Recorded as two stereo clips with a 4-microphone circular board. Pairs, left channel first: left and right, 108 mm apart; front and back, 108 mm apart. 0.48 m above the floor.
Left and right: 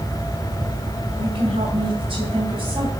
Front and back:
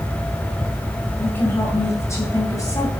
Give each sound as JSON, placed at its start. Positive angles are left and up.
{"t": 1.2, "sound": "a woman speaking", "azimuth_deg": -70, "distance_m": 2.0}